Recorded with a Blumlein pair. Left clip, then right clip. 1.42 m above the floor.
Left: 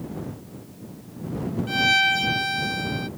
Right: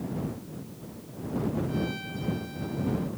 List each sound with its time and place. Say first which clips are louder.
1.7 s a violin: left 16 dB; 40° left